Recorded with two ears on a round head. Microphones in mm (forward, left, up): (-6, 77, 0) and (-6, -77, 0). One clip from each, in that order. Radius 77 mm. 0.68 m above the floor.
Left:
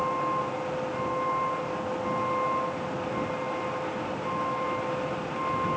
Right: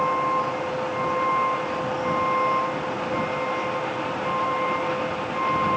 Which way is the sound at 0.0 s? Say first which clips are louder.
Right 5 dB; 85° right.